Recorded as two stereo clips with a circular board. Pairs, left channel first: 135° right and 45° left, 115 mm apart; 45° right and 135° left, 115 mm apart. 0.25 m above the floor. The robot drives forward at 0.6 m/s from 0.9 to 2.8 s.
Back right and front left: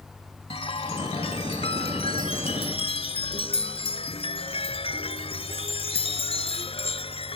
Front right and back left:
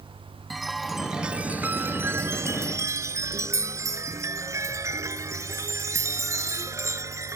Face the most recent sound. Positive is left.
turn(degrees=-160)